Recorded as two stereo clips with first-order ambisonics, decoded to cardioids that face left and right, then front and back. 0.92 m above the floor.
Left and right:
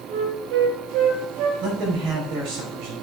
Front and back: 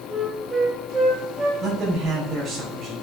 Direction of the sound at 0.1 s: 105° right.